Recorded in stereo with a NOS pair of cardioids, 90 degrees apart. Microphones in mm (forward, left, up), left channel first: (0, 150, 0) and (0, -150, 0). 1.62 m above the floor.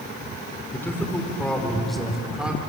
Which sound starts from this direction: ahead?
A man speaking, at 0.7 s.